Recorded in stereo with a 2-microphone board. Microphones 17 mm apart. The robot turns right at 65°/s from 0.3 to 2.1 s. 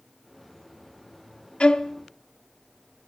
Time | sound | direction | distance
1.6 | a violin | 85° left | 0.6 m